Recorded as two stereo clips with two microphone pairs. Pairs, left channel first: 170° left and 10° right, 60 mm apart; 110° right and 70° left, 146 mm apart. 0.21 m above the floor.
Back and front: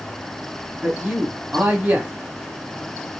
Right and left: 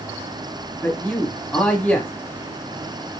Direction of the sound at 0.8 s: 40° right.